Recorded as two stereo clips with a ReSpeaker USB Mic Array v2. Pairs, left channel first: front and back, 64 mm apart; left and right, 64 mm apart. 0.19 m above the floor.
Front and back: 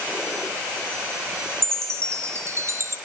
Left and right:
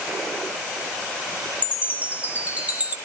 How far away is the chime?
About 3.5 m.